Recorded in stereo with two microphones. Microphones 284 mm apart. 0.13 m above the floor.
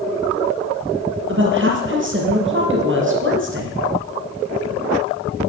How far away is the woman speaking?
About 3.5 m.